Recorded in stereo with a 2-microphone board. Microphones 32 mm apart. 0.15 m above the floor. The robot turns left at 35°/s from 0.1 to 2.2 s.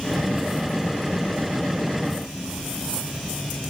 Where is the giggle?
I don't hear a giggle.